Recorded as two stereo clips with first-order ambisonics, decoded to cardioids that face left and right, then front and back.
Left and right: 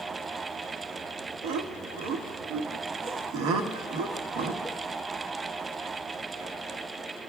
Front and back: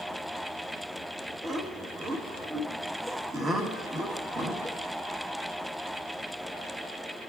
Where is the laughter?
110° right, 1.1 m.